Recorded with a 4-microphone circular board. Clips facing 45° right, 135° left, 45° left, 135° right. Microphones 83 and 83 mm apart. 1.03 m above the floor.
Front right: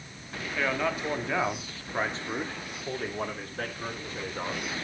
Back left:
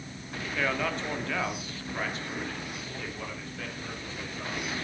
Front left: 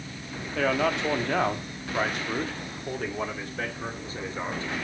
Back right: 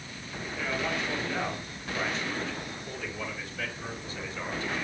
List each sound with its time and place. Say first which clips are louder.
0.6 s a man speaking: front right 1 dB, front left 7 dB; 40° left, 1.8 m; by 4.7 s 10° right, 3 m